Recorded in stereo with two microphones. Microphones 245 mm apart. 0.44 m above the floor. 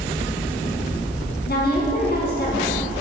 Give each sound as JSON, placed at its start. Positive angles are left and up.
{"t": 1.5, "sound": "a woman speaking", "side_deg": 40, "distance_m": 4.0}